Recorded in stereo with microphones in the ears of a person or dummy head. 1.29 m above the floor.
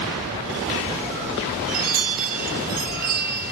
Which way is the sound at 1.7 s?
45° right (ahead or behind).